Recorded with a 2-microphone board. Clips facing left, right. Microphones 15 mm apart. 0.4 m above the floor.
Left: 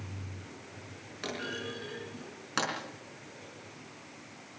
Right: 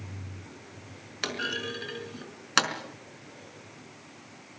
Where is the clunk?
45° right (ahead or behind), 4.5 m.